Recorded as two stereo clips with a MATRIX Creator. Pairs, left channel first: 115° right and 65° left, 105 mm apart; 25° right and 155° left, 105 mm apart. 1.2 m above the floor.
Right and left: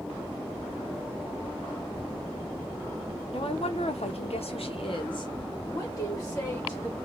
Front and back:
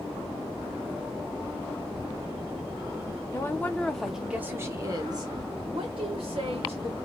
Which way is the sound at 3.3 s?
85° right.